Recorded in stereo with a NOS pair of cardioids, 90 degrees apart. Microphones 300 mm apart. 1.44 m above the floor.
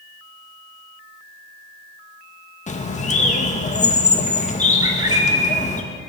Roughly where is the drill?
I don't hear a drill.